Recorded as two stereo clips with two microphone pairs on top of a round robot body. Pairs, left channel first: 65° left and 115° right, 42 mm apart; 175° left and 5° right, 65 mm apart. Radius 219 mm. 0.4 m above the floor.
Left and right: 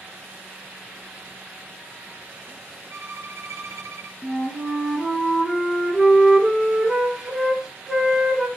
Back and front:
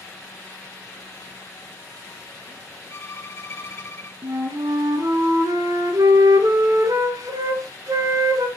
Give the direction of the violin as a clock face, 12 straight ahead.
4 o'clock.